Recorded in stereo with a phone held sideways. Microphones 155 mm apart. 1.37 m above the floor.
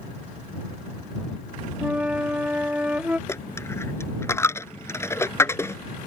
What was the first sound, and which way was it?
A flute, 10° right (ahead or behind).